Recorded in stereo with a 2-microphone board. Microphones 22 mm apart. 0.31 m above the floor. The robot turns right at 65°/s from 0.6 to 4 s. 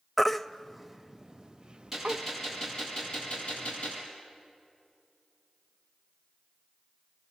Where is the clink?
No clink in this recording.